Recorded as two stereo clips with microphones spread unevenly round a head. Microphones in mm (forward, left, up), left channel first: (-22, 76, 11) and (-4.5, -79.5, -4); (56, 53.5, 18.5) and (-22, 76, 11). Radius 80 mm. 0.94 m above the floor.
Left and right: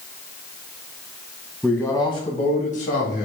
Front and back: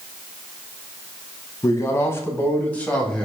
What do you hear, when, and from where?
1.6 s a man speaking: 10° left, 1.1 m; by 3.2 s 60° left, 2.0 m